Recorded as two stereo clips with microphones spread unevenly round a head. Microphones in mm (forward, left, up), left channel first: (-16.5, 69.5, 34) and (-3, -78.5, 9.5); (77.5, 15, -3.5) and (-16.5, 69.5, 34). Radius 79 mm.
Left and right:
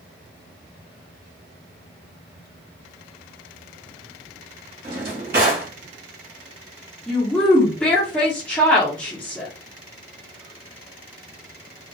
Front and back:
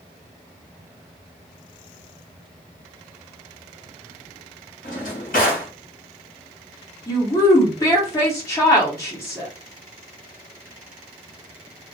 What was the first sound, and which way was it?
A drawer, 55° right.